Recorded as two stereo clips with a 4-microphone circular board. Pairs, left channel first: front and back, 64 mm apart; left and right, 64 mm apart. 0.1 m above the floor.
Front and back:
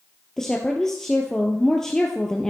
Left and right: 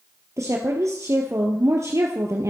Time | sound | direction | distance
0.4 | a woman speaking | 80° right | 2 m